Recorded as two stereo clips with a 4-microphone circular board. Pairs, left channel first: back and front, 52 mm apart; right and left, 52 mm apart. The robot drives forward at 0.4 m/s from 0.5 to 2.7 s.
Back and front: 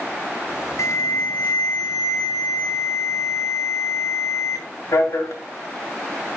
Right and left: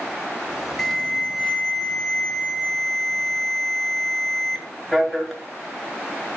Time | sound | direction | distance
0.8 | an alarm | 175° right | 1.9 m